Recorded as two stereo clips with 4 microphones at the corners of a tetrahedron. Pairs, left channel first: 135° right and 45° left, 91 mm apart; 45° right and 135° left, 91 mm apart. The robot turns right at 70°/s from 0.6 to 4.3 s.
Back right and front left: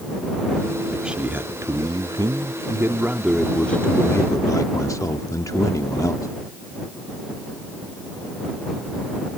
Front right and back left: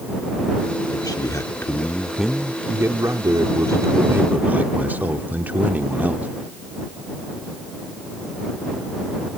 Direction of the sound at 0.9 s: 45° right.